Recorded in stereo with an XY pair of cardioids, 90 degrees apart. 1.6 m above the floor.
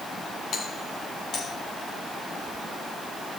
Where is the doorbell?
65° left, 5.5 m.